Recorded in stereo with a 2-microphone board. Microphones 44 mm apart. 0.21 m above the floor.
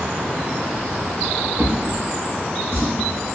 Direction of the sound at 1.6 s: 70° right (ahead or behind).